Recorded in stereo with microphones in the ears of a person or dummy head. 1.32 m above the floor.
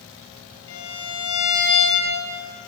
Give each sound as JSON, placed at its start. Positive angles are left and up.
{"t": 0.7, "sound": "a violin", "side_deg": 80, "distance_m": 9.0}